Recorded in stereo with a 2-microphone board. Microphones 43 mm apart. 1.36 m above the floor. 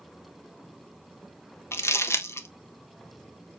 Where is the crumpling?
80° left, 0.8 m.